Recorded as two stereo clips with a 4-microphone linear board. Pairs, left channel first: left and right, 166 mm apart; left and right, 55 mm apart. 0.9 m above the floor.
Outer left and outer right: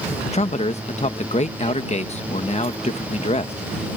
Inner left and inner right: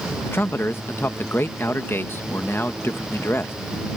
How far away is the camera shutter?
I don't hear a camera shutter.